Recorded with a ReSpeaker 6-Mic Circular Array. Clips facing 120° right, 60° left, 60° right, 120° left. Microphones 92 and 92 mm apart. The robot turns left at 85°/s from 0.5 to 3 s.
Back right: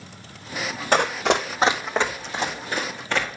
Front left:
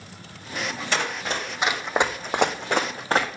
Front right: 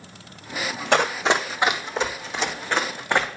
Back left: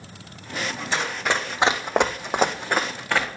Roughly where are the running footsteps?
Right.